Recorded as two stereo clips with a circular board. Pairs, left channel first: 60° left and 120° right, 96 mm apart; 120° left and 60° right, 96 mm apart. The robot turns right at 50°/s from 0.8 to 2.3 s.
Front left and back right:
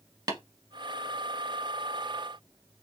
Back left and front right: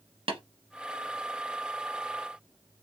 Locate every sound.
0.3 s tapping: 75° right, 1.7 m